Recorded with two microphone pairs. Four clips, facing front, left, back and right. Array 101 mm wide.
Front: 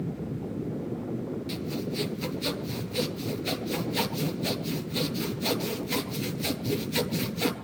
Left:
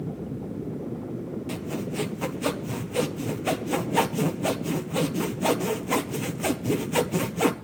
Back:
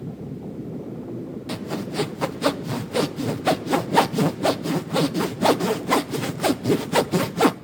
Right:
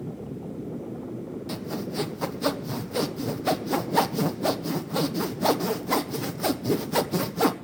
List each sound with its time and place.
1.5 s sawing: 175° right, 1.0 m